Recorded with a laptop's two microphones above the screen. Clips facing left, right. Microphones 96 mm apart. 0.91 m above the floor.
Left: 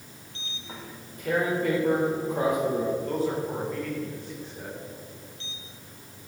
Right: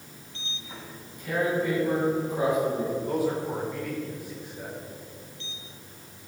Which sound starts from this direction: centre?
A man speaking, at 3.1 s.